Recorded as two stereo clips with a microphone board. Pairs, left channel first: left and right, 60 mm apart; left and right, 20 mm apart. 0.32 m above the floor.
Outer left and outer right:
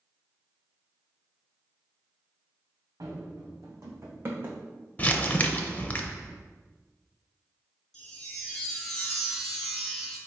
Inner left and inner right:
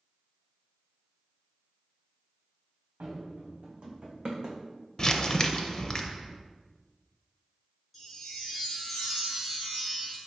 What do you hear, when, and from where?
3.0 s running footsteps: 65° right (ahead or behind), 1.4 m; by 4.6 s 25° right (ahead or behind), 1.1 m
5.0 s crumpling: 25° left (ahead or behind), 0.5 m
7.9 s a chime: 5° left (ahead or behind), 1.4 m